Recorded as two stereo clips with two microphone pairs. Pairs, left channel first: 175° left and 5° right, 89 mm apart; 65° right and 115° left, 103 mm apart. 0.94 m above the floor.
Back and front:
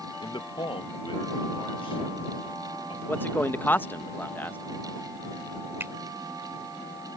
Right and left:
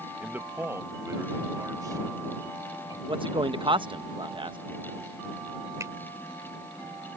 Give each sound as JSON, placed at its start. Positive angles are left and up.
{"t": 0.2, "sound": "a man speaking", "azimuth_deg": -165}
{"t": 3.1, "sound": "a man speaking", "azimuth_deg": 110}
{"t": 5.8, "sound": "a finger snap", "azimuth_deg": 55}